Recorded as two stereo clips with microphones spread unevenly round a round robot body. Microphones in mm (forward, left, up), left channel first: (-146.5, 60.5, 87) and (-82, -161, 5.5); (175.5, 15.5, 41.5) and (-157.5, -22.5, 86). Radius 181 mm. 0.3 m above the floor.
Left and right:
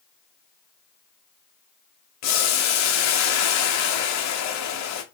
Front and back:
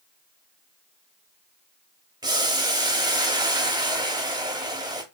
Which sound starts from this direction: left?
Boiling, at 2.2 s.